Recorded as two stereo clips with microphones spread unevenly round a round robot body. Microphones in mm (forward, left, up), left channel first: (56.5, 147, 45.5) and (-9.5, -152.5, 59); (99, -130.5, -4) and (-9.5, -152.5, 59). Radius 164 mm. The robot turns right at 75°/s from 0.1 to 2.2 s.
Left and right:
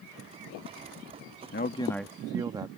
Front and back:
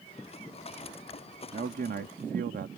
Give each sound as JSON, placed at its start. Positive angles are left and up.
{"t": 1.5, "sound": "a man speaking", "azimuth_deg": 130}